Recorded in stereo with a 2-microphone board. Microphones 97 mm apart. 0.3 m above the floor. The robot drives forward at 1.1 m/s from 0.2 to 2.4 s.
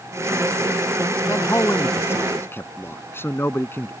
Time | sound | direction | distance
1.3 | a man speaking | 30° left (ahead or behind) | ?